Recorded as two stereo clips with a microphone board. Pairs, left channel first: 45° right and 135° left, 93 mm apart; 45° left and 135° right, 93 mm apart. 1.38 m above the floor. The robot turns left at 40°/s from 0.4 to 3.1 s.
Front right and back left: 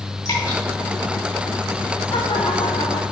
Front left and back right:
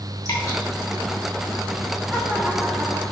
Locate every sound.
0.2 s dripping: 5° right, 3 m; by 0.6 s 15° right, 3 m
2.1 s laughter: 40° right, 0.8 m; by 3.0 s 80° right, 0.8 m